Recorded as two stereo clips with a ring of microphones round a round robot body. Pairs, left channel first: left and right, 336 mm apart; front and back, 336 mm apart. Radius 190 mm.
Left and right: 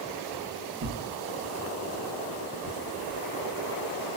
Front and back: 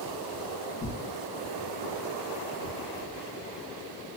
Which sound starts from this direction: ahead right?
Tearing paper, at 0.8 s.